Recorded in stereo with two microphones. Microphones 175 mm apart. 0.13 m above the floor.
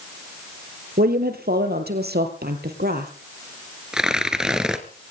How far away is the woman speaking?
About 3.5 m.